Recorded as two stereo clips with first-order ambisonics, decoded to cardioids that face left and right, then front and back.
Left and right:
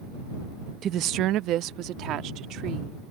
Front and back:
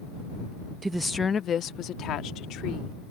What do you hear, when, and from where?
0.8 s a woman speaking: 115° right; by 3.0 s 40° right